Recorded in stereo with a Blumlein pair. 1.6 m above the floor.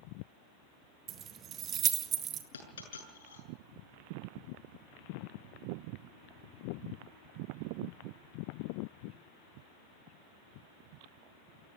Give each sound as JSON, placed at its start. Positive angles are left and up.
{"t": 1.1, "sound": "keys jangling", "azimuth_deg": -30, "distance_m": 1.7}
{"t": 2.5, "sound": "a dropped coin", "azimuth_deg": 65, "distance_m": 7.5}